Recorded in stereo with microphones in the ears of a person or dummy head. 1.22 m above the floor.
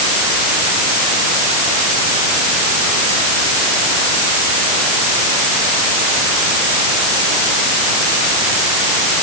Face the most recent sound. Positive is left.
No sound to turn to.